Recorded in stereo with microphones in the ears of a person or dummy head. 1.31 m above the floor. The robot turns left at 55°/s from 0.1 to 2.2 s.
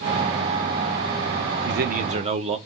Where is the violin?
No violin in this recording.